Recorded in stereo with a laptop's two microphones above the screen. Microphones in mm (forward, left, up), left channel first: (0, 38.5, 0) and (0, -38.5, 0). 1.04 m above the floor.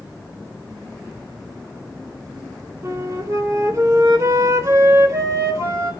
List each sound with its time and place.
2.8 s a flute: 40° right (ahead or behind), 3.5 m